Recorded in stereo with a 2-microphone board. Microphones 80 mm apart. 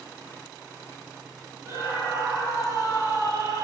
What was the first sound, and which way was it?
A scream, 40° right (ahead or behind).